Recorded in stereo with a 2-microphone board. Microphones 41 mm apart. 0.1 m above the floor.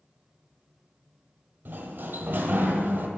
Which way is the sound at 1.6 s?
55° right (ahead or behind).